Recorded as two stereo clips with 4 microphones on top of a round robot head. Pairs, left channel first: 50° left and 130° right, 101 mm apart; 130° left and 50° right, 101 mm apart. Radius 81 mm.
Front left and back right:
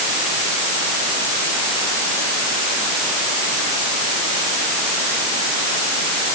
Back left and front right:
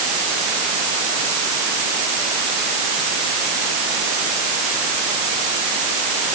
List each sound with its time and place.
Only background noise.